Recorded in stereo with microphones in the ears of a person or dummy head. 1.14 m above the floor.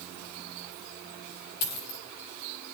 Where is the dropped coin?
60° left (ahead or behind), 1.4 m.